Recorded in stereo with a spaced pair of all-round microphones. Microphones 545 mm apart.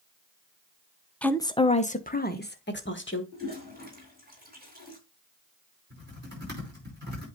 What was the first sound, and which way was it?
A woman speaking, centre (ahead or behind).